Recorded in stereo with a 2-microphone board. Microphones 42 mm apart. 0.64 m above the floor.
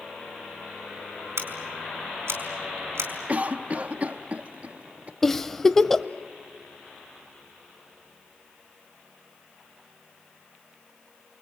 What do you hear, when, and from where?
1.4 s scissors: 80° right, 4.5 m
3.3 s a cough: 35° right (ahead or behind), 0.8 m
5.2 s a giggle: 5° left (ahead or behind), 0.8 m